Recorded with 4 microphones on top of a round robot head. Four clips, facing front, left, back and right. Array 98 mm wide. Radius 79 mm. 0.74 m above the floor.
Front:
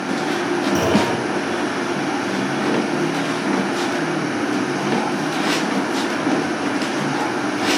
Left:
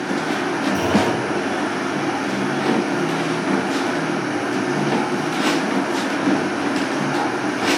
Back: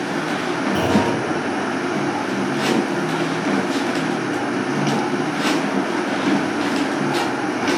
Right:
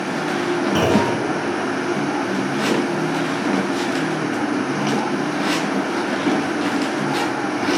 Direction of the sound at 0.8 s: 80° right.